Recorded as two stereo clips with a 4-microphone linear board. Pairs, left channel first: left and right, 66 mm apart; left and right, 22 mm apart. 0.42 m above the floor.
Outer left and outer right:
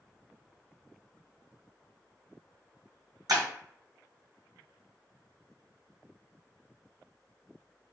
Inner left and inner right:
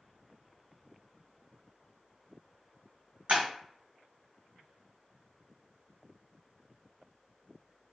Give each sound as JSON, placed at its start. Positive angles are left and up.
{"t": 3.3, "sound": "breaking glass", "side_deg": -70, "distance_m": 1.4}